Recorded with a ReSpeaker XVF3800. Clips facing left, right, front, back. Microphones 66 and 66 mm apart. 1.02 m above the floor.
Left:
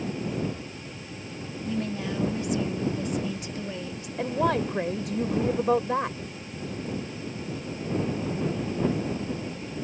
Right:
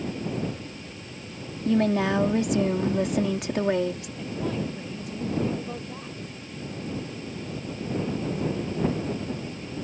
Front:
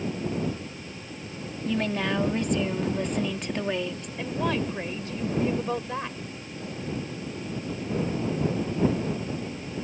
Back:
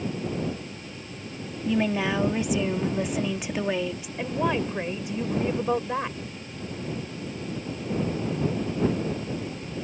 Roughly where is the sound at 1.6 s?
Right.